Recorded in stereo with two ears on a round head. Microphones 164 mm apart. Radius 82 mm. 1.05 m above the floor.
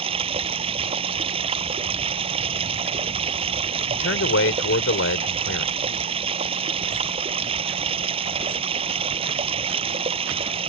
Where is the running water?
30° right (ahead or behind).